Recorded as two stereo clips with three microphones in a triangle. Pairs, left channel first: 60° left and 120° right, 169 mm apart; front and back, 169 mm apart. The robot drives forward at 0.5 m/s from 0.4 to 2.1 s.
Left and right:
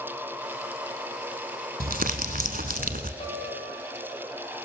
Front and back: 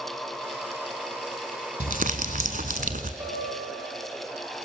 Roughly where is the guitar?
Left.